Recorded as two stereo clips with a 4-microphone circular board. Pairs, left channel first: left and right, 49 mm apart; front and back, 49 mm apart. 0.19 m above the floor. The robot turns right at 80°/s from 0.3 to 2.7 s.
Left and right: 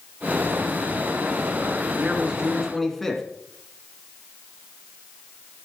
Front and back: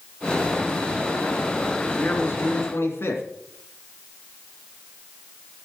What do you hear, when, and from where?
2.0 s a man speaking: 50° right, 2.5 m; by 3.2 s 5° left, 2.5 m